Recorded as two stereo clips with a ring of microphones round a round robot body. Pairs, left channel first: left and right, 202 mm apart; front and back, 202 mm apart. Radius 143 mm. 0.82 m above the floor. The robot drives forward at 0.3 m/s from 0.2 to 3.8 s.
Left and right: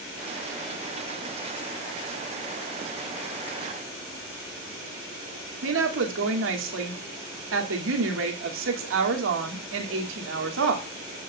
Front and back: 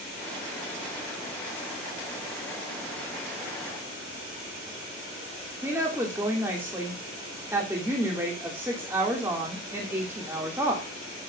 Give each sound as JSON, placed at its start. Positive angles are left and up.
{"t": 5.6, "sound": "a woman speaking", "azimuth_deg": -100, "distance_m": 2.5}